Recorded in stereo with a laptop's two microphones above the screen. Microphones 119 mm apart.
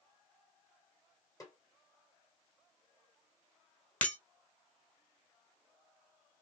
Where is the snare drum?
30° left (ahead or behind), 1.8 m.